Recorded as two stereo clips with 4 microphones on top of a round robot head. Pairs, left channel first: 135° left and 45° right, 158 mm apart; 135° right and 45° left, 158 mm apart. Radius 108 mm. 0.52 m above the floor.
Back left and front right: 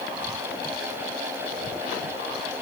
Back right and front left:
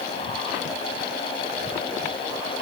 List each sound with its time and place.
Only background noise.